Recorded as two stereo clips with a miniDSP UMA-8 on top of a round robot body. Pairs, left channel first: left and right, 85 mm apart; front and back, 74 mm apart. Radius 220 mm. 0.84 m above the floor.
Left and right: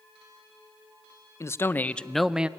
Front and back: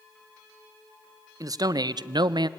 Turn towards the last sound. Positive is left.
turn(degrees=-165)